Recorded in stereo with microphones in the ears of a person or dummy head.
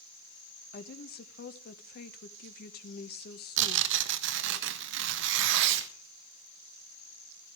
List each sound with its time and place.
0.7 s a woman speaking: 50° left (ahead or behind), 1.4 m
3.6 s tearing paper: 70° right (ahead or behind), 1.4 m